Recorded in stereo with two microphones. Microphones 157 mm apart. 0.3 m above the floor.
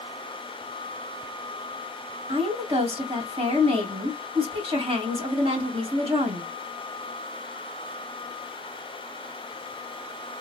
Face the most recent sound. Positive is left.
turn(degrees=-40)  # may be behind; listen again after turning